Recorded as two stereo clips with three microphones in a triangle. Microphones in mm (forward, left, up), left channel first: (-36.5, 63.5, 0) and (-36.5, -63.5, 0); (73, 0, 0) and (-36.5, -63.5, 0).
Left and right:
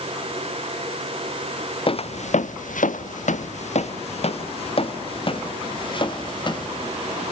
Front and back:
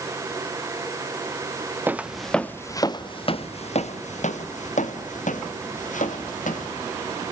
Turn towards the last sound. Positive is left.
turn(degrees=35)